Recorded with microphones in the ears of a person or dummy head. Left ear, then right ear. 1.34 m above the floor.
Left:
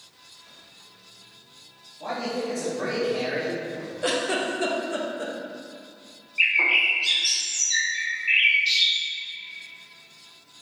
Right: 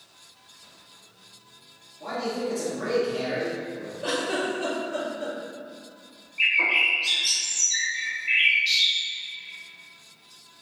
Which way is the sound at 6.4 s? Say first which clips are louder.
Left 1 dB; 15° left (ahead or behind).